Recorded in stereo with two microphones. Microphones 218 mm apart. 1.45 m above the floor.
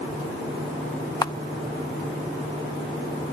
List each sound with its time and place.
1.2 s a camera shutter: 20° left (ahead or behind), 0.5 m